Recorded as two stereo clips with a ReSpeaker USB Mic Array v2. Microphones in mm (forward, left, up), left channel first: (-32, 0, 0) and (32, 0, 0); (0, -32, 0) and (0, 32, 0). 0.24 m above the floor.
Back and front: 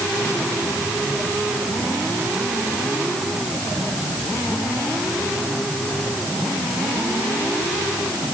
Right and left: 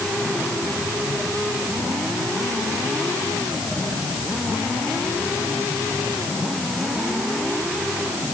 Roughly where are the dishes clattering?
I don't hear dishes clattering.